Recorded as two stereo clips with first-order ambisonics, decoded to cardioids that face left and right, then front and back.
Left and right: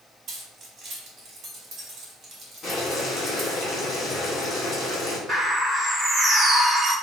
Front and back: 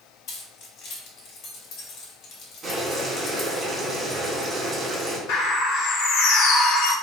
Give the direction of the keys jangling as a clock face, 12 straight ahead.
1 o'clock.